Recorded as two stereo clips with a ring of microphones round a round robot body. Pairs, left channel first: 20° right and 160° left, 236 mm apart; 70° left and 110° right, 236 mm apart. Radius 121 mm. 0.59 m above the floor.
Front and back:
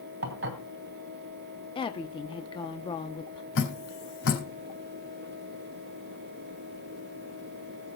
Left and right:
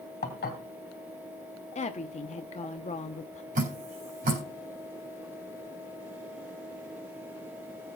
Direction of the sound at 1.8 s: 30° left.